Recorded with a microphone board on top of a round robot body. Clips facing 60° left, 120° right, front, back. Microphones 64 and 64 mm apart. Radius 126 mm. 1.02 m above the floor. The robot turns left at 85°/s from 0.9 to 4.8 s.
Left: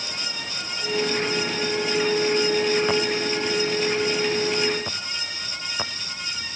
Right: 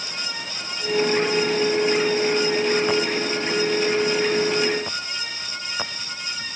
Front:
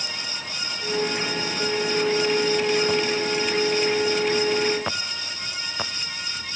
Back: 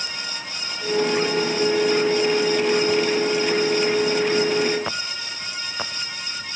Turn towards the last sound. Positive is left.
No sound to turn to.